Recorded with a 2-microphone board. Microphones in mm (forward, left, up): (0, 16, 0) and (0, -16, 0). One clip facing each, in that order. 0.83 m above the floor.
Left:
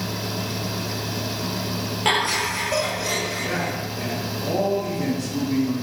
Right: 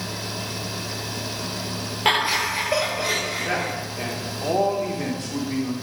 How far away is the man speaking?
About 2 m.